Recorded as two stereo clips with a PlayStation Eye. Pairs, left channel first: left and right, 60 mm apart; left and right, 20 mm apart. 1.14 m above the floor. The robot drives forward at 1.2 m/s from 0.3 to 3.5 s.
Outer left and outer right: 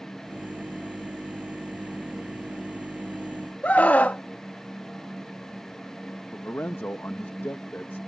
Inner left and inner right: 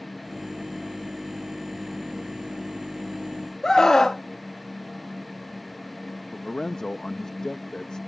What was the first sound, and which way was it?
A scream, 25° left (ahead or behind).